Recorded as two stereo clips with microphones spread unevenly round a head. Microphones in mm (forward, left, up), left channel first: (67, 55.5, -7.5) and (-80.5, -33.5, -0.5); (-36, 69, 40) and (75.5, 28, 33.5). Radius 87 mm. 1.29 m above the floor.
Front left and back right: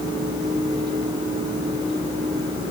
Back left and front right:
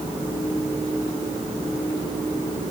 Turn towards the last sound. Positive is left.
No sound to turn to.